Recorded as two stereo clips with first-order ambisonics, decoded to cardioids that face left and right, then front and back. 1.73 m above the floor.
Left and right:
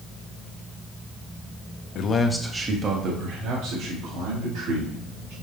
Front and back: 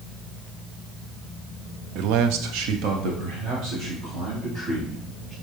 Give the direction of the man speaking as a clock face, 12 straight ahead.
7 o'clock.